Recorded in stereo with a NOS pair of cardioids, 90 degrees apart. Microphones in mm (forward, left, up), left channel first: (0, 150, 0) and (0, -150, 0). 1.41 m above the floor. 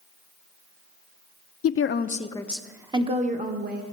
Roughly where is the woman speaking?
Ahead left.